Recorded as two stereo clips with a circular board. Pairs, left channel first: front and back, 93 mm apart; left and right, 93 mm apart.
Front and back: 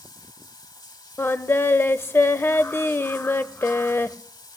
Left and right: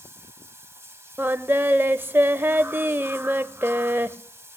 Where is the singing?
45° right, 0.6 m.